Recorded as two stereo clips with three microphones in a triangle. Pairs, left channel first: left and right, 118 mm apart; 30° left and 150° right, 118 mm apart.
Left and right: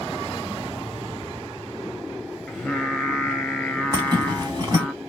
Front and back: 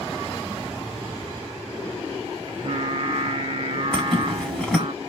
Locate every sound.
2.5 s singing: 175° left, 0.7 m
3.9 s a zipper: 55° right, 1.6 m